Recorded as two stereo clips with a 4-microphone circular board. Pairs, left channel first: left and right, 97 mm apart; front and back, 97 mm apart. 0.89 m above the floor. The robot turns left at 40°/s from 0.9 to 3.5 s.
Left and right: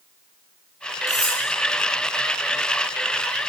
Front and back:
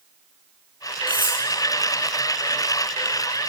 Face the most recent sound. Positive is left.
turn(degrees=50)